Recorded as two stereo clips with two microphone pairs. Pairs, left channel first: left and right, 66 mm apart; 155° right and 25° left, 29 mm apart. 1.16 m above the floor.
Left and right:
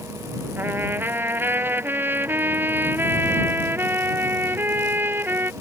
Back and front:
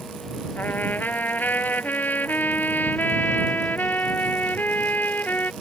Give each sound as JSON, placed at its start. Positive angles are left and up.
{"t": 0.6, "sound": "a trumpet", "azimuth_deg": -145}